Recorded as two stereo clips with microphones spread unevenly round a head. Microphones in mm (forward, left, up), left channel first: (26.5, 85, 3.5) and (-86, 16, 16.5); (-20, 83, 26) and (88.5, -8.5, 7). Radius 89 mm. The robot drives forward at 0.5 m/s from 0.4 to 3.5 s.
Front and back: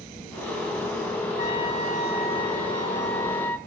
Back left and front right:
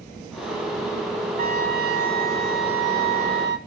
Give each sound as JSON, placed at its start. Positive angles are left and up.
{"t": 1.4, "sound": "a trumpet", "azimuth_deg": -25, "distance_m": 2.0}